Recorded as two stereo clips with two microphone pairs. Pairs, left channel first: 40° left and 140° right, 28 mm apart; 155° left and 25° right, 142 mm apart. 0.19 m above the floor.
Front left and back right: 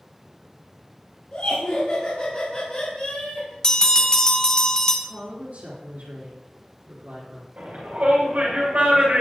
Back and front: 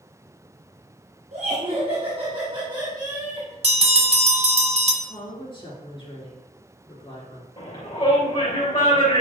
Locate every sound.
1.3 s laughter: 5° left, 2 m; by 3.5 s 45° left, 1.6 m
3.6 s a bell: 10° right, 1.2 m
5.0 s a woman speaking: 155° right, 3 m
7.6 s a shout: 155° right, 3.5 m